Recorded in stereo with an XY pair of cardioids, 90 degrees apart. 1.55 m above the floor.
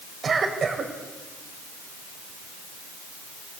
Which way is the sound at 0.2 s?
50° right.